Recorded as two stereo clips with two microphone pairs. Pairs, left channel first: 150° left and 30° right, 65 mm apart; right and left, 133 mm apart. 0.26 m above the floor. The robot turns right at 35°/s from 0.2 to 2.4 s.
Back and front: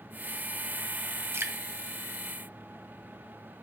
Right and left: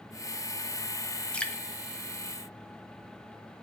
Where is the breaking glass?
I don't hear breaking glass.